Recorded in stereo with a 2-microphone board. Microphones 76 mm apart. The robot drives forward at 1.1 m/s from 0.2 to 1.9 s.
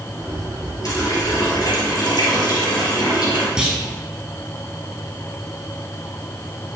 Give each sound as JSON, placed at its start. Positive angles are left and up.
{"t": 0.8, "sound": "a running tap", "side_deg": 50, "distance_m": 3.5}
{"t": 3.6, "sound": "a clunk", "side_deg": -10, "distance_m": 1.9}